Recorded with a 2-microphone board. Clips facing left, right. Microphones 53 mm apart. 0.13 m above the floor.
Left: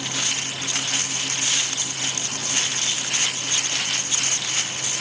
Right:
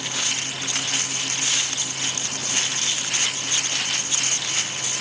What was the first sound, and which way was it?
Only background noise.